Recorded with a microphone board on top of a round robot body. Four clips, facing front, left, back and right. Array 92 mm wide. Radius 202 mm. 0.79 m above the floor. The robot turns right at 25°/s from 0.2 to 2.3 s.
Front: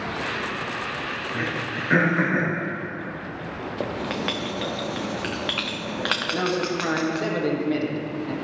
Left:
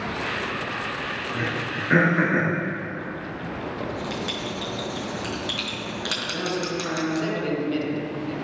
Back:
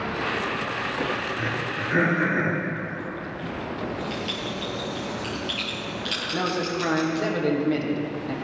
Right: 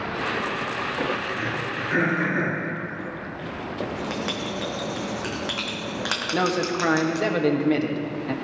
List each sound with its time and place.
1.3 s throat clearing: 30° left, 4 m; by 2.6 s 55° left, 4 m
3.8 s writing: 25° right, 1.4 m
6.3 s a man speaking: 90° right, 1.9 m